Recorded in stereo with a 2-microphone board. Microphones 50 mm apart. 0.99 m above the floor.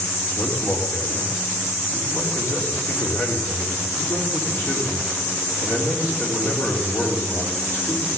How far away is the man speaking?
About 3 m.